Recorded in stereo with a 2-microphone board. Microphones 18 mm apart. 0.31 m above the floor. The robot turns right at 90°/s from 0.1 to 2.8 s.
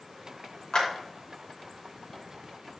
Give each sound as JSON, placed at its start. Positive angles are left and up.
{"t": 0.7, "sound": "a clap", "side_deg": 50, "distance_m": 3.5}